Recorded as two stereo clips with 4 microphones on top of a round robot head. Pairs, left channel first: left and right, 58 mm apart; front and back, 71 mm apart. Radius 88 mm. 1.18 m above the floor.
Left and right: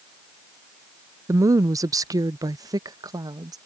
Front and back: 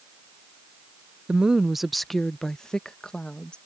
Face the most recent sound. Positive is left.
turn(degrees=-80)